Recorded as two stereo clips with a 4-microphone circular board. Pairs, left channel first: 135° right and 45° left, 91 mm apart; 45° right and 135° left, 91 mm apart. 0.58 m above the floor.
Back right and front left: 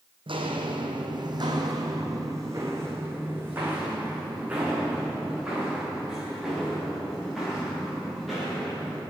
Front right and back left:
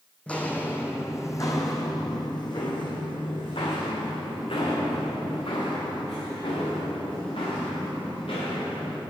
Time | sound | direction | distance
0.3 | footsteps | 30° left | 1.7 m